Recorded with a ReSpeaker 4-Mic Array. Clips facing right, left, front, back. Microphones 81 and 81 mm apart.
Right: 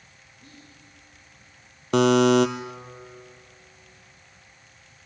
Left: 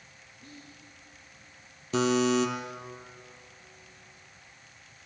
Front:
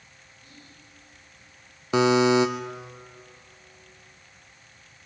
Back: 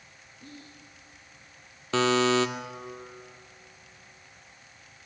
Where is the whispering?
170° right, 8.5 m.